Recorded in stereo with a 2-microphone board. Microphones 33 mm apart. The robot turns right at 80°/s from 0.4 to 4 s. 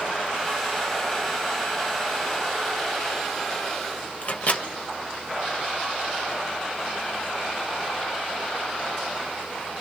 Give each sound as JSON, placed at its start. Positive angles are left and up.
{"t": 4.2, "sound": "a microwave", "side_deg": 45, "distance_m": 1.1}